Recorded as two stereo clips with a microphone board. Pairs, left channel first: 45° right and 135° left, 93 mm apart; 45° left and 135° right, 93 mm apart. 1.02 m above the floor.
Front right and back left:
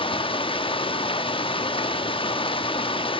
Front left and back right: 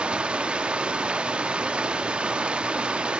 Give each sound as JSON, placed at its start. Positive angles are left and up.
{"t": 0.0, "sound": "running water", "azimuth_deg": -55, "distance_m": 0.7}